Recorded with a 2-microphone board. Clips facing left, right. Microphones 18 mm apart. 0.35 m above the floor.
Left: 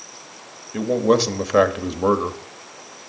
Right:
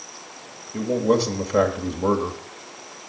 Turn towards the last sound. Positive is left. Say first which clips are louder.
# left 3 dB
turn(degrees=40)  # may be behind; listen again after turning